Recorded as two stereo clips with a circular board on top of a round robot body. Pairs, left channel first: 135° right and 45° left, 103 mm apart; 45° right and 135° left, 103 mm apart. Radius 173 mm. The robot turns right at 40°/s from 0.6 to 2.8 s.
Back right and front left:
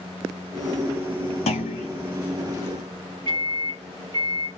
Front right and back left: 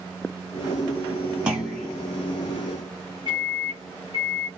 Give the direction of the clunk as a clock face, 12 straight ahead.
5 o'clock.